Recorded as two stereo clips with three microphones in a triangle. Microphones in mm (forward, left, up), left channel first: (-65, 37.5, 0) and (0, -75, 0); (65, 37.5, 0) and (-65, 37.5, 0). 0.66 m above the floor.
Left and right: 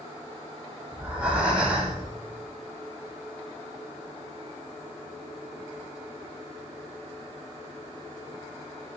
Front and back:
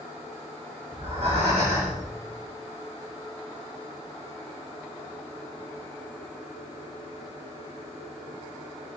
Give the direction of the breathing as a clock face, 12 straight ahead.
5 o'clock.